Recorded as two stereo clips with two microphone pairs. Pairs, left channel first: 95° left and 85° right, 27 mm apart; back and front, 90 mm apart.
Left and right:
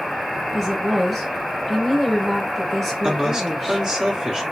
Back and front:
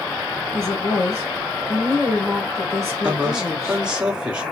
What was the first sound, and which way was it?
A woman speaking, 170° right.